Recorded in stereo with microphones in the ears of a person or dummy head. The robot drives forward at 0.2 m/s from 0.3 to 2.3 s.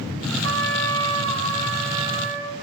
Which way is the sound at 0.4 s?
75° right (ahead or behind).